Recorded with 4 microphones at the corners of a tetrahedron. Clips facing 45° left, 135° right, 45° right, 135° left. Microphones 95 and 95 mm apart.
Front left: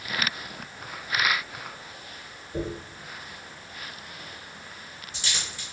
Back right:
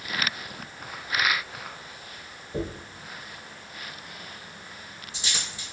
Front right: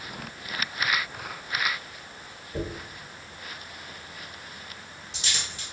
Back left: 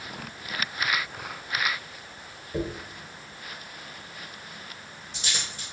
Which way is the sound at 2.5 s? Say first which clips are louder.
Even, back left 2 dB; 155° left.